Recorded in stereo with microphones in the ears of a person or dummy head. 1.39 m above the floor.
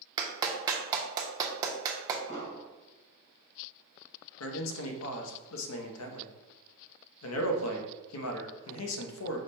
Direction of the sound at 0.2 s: 25° right (ahead or behind).